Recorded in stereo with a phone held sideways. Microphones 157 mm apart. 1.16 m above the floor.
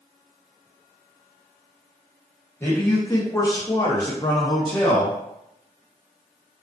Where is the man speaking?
15° left (ahead or behind), 1.0 m; by 5.2 s 10° left (ahead or behind), 0.9 m.